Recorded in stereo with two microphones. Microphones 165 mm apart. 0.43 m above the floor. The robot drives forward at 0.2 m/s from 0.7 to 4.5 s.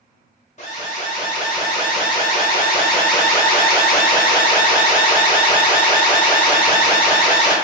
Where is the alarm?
50° left (ahead or behind), 1.1 m; by 7.5 s 55° left (ahead or behind), 1.0 m.